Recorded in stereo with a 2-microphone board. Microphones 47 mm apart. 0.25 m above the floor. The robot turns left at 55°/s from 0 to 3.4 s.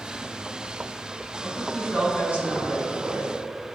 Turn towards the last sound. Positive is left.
turn(degrees=-115)